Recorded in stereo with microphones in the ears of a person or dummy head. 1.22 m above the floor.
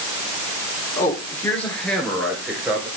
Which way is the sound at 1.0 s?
20° left (ahead or behind).